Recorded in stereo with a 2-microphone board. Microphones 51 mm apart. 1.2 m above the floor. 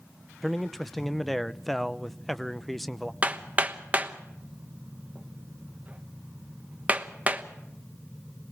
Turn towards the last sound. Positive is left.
turn(degrees=-25)  # may be behind; listen again after turning